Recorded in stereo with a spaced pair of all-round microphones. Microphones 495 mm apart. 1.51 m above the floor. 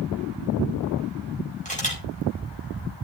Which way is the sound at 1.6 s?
15° left (ahead or behind).